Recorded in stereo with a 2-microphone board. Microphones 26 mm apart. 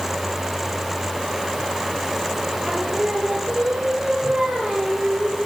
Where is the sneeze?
No sneeze in this recording.